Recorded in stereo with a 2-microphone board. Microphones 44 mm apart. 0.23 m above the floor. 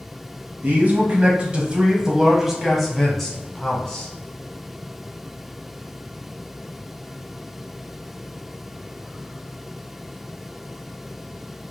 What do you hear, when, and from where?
0.6 s a man speaking: 40° right (ahead or behind), 1.3 m; by 4.1 s 20° left (ahead or behind), 1.8 m